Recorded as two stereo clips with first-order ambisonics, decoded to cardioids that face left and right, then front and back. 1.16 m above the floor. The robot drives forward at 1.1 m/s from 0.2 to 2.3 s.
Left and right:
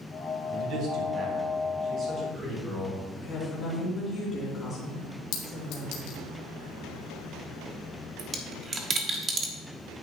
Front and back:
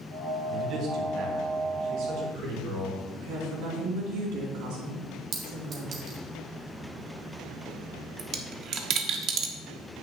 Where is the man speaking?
125° right, 2 m; by 3.0 s 155° right, 3.5 m.